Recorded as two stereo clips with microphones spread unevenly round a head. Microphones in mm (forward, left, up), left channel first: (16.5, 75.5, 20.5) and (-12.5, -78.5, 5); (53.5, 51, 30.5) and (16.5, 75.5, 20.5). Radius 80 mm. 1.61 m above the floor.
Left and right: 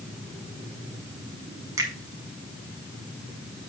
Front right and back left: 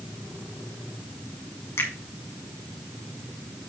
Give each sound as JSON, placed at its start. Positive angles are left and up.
{"t": 1.8, "sound": "a finger snap", "azimuth_deg": -30, "distance_m": 1.9}